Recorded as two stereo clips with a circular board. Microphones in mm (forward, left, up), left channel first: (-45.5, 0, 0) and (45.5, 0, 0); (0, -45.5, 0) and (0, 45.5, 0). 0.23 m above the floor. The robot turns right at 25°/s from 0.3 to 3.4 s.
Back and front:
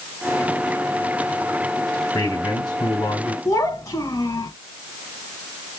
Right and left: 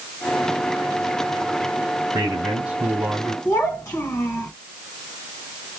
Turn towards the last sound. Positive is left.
turn(degrees=-140)